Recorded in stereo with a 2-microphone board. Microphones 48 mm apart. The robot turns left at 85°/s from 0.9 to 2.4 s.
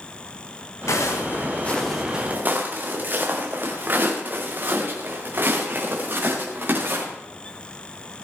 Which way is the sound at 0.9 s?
85° left.